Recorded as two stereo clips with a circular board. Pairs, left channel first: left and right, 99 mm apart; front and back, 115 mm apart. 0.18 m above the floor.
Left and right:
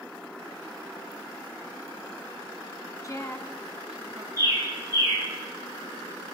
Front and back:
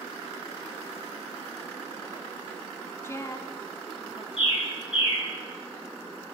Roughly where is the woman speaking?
Ahead left.